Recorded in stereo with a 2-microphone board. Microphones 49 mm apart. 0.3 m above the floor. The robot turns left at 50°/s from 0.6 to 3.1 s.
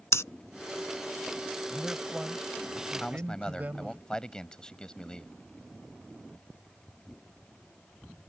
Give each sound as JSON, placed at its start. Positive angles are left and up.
{"t": 0.1, "sound": "breathing", "side_deg": 70}
{"t": 1.7, "sound": "a man speaking", "azimuth_deg": 0}
{"t": 3.0, "sound": "a man speaking", "side_deg": 20}